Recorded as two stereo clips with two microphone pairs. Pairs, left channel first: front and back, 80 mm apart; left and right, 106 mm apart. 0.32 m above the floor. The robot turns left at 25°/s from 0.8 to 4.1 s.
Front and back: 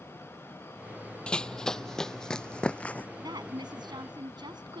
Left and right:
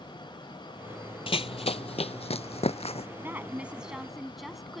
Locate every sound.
1.3 s running footsteps: 75° left; by 3.1 s 70° left
3.2 s a woman speaking: 155° right; by 4.8 s straight behind